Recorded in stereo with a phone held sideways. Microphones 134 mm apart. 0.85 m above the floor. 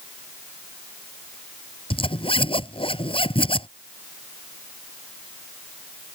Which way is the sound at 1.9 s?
40° left (ahead or behind).